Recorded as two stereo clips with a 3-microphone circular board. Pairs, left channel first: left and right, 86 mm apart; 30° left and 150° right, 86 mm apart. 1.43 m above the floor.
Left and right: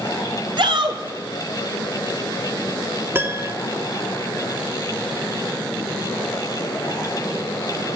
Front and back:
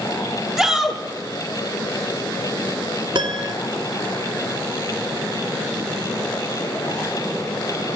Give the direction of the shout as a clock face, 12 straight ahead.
2 o'clock.